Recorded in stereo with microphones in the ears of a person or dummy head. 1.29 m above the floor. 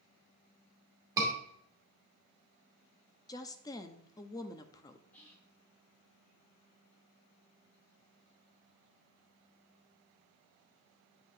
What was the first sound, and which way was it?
A scream, 15° right (ahead or behind).